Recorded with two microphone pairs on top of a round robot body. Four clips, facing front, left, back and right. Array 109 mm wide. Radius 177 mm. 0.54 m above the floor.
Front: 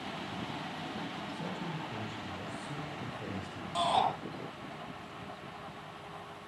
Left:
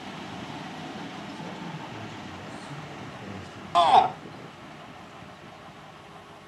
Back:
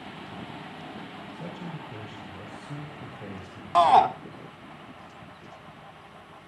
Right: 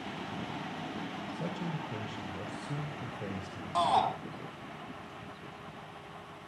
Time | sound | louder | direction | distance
1.3 | a man speaking | even, back 1 dB | 105° right | 4 m
3.8 | a shout | left 9 dB, back 11 dB | 135° left | 2.0 m